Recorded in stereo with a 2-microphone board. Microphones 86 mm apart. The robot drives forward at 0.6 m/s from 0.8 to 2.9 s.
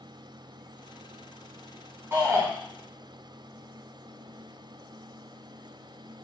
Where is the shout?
25° right (ahead or behind), 1.9 m.